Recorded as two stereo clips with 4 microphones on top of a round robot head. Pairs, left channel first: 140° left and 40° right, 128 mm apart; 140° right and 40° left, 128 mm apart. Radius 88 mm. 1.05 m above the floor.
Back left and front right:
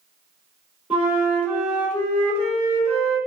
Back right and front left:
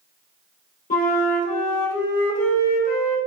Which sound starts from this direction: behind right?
A flute, at 0.9 s.